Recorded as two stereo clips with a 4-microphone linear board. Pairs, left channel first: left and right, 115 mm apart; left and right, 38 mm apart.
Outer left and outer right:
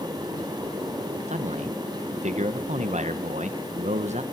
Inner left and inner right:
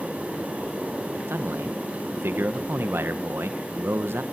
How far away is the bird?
I don't hear a bird.